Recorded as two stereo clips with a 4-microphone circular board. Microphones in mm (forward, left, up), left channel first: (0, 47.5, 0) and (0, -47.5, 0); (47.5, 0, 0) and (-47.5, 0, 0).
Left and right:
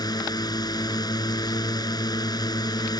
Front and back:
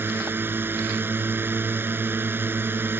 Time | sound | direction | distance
0.0 | a drone | 120° left | ?